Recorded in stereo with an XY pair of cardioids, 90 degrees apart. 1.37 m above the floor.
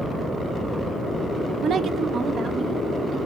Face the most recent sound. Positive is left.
turn(degrees=-65)